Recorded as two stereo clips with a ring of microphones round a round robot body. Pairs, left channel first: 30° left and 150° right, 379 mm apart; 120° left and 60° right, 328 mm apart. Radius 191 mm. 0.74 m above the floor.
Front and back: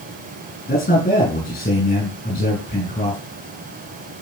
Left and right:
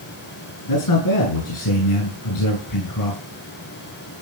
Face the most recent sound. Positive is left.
turn(degrees=100)